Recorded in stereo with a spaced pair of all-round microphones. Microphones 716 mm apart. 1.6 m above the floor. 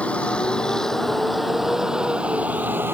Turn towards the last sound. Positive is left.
turn(degrees=-5)  # may be behind; listen again after turning